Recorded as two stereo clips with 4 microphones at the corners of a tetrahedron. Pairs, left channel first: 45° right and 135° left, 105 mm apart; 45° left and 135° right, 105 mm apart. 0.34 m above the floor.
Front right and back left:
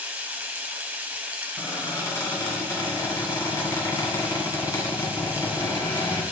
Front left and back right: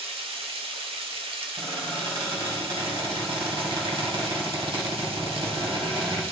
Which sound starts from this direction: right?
A squeak, at 1.6 s.